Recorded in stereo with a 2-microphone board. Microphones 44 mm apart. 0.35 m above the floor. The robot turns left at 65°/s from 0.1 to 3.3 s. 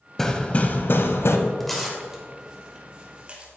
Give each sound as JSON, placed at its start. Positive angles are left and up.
{"t": 0.2, "sound": "hammering", "azimuth_deg": 170, "distance_m": 0.8}
{"t": 1.6, "sound": "tearing paper", "side_deg": 5, "distance_m": 1.5}